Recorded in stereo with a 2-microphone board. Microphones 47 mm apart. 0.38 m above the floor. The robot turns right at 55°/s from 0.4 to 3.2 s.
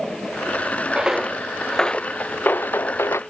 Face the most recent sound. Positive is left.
turn(degrees=70)  # may be behind; listen again after turning